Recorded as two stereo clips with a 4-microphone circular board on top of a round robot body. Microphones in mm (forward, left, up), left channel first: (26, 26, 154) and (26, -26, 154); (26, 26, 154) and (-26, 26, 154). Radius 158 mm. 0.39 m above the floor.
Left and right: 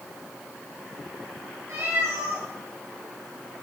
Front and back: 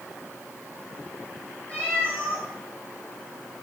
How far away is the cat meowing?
About 5 m.